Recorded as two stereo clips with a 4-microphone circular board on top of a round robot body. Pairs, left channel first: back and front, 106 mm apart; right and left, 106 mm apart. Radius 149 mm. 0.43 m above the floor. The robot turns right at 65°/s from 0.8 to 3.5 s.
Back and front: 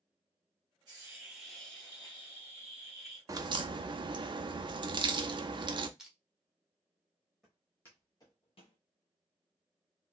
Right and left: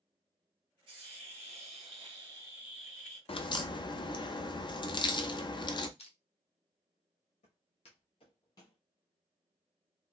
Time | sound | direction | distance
0.9 | a hiss | 50° left | 1.9 m
3.3 | a crack | 60° right | 0.5 m
6.0 | crushing | 85° right | 1.0 m
7.4 | footsteps | 90° right | 1.3 m